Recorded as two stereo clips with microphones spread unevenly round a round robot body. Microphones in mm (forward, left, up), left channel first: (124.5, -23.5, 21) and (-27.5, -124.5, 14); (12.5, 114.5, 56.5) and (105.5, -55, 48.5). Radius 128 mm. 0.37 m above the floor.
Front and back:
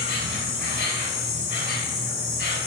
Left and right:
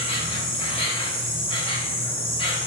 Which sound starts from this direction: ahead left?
An insect, at 0.0 s.